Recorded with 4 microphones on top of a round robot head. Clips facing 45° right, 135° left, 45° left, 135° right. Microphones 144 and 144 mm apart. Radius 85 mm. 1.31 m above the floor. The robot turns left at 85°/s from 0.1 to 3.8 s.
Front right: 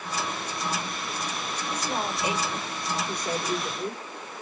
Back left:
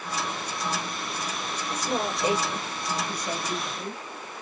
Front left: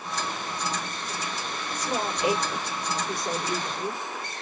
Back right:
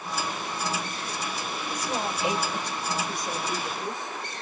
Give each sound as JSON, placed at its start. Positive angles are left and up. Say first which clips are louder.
{"t": 1.7, "sound": "a woman speaking", "louder": "back left 2 dB, front left 2 dB", "azimuth_deg": 130, "distance_m": 4.0}